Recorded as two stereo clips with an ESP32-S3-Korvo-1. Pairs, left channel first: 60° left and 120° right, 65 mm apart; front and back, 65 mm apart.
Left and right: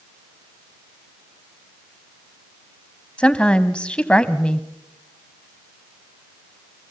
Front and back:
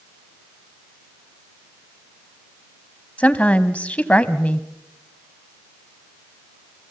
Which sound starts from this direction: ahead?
A woman speaking, at 3.2 s.